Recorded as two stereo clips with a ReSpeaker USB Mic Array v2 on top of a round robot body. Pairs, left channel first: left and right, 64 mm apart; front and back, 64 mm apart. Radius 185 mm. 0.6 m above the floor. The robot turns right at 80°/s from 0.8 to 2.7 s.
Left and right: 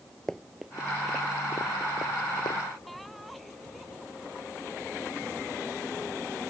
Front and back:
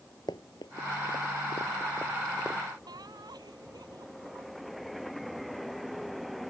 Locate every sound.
0.3 s running footsteps: 10° left; by 2.6 s 110° left
2.9 s laughter: straight behind